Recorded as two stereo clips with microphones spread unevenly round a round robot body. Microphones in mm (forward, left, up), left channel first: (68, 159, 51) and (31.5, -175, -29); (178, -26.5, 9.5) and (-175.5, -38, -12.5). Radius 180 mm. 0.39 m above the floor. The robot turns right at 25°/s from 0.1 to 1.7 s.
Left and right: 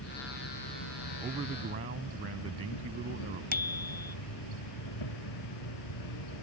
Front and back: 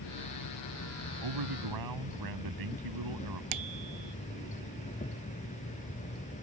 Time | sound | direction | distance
0.0 | an insect | 35° left | ?
1.2 | a man speaking | 175° right | ?
3.5 | a bicycle bell | 170° left | ?